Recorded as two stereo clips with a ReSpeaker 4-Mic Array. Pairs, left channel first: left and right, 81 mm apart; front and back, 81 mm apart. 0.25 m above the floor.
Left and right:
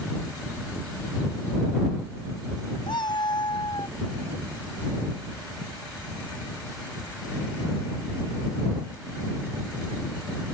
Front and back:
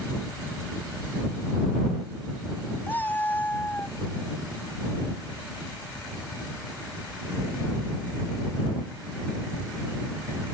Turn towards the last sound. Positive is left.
turn(degrees=65)